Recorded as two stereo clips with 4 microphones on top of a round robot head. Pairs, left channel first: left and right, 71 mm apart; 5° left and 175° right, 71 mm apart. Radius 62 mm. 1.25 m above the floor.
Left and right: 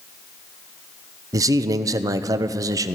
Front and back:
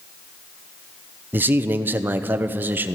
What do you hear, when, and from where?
1.3 s a man speaking: 115° right, 0.6 m